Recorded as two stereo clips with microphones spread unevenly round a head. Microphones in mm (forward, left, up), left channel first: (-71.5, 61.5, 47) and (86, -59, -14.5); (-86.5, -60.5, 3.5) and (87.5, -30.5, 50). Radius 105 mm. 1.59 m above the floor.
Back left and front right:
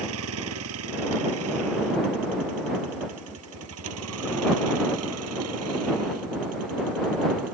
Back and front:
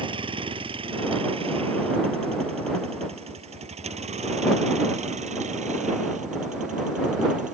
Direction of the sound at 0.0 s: 50° right.